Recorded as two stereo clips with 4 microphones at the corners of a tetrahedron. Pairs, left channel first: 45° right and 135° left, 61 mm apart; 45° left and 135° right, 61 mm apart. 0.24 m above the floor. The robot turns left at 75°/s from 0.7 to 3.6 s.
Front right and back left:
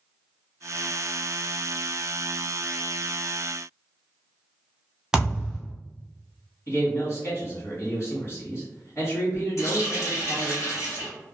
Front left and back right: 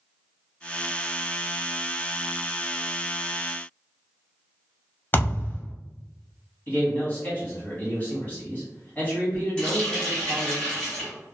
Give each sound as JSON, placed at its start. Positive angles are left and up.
{"t": 5.1, "sound": "a thud", "azimuth_deg": 65, "distance_m": 0.6}
{"t": 6.7, "sound": "a man speaking", "azimuth_deg": -10, "distance_m": 1.6}
{"t": 9.6, "sound": "a running tap", "azimuth_deg": -30, "distance_m": 1.4}